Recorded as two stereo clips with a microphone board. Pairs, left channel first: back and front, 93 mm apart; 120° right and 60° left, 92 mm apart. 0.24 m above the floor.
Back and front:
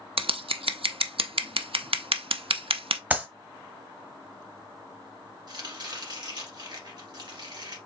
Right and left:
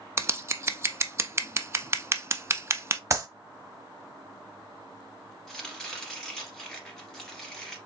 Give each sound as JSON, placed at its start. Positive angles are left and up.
{"t": 0.2, "sound": "scissors", "azimuth_deg": 0, "distance_m": 0.5}
{"t": 3.1, "sound": "a clap", "azimuth_deg": 55, "distance_m": 1.1}
{"t": 5.5, "sound": "chopping", "azimuth_deg": -35, "distance_m": 1.9}